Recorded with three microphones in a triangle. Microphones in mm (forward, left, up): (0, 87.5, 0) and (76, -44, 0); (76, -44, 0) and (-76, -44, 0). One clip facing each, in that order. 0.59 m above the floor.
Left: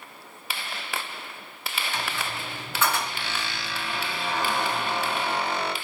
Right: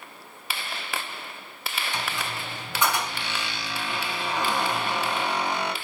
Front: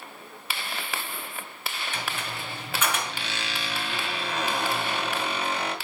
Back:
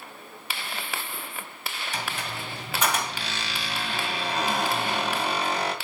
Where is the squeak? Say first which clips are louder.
Even, back 3 dB; 130° right, 2.5 m.